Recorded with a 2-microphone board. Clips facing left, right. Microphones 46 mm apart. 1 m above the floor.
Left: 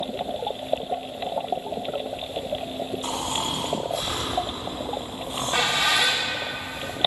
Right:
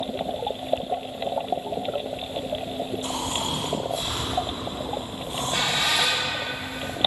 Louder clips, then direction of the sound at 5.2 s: Left 2 dB; 55° left (ahead or behind).